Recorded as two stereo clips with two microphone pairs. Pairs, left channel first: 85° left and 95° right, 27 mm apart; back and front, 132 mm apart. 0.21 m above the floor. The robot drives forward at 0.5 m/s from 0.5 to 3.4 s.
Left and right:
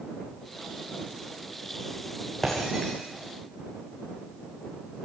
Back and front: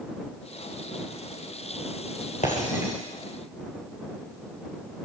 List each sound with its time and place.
2.4 s breaking glass: 160° left, 7.5 m